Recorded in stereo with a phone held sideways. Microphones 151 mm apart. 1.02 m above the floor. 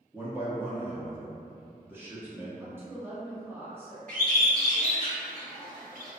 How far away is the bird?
About 1.4 m.